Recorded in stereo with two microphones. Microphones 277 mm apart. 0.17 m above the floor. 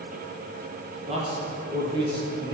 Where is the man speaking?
20° right (ahead or behind), 4 m; by 2.5 s 15° right (ahead or behind), 4 m.